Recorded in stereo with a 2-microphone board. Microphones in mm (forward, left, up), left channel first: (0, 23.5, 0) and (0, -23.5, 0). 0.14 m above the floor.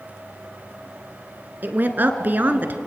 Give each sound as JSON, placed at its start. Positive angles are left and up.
{"t": 1.6, "sound": "a woman speaking", "side_deg": -45, "distance_m": 1.5}